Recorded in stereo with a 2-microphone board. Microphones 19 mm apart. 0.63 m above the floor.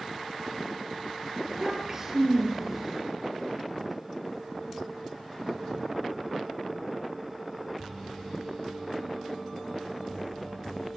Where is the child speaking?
20° right (ahead or behind), 7 m.